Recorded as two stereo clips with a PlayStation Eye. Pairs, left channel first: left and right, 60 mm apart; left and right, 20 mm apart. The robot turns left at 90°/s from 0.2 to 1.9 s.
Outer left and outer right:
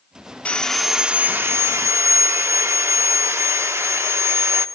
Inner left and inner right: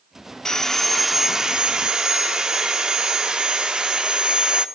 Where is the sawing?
35° left, 1.1 m; by 4.7 s 95° right, 1.1 m.